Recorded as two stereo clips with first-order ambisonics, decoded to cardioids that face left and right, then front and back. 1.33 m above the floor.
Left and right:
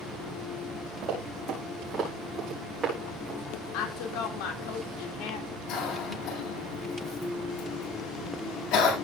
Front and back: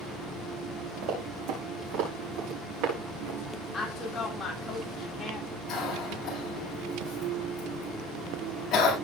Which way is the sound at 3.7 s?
80° left.